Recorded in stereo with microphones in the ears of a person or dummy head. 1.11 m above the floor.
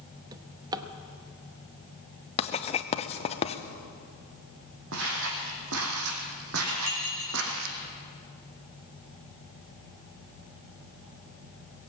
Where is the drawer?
20° right (ahead or behind), 0.8 m.